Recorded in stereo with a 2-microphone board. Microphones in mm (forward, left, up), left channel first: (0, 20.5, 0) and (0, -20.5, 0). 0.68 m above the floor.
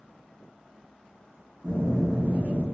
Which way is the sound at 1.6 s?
45° right (ahead or behind).